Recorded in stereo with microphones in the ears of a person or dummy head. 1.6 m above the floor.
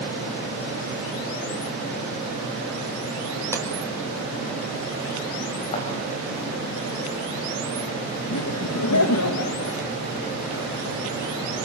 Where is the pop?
10° left (ahead or behind), 5 m.